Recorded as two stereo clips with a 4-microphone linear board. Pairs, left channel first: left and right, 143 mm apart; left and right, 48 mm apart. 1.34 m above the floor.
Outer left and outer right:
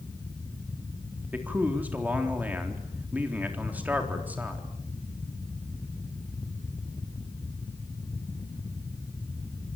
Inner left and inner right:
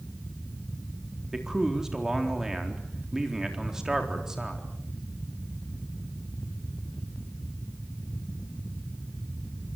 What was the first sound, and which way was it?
A man speaking, 10° right (ahead or behind).